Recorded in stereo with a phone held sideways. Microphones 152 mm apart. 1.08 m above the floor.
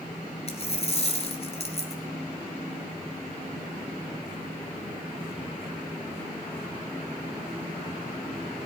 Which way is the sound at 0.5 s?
45° left (ahead or behind).